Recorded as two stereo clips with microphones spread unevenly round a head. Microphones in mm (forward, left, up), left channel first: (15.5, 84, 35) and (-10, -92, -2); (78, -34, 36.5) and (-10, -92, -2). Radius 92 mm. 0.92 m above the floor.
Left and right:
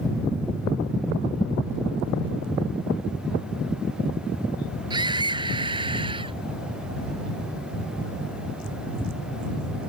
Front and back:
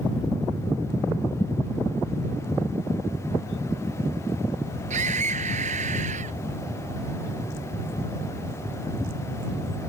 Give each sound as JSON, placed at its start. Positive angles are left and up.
{"t": 4.9, "sound": "a scream", "azimuth_deg": -165}